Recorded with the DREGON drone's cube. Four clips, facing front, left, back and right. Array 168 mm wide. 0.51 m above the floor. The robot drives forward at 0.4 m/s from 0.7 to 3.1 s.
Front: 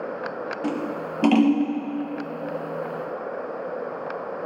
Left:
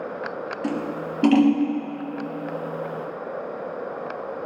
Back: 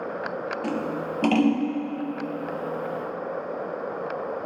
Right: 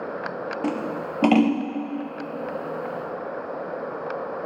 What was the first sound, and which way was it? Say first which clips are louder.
Scissors: even, front 2 dB; 80° right.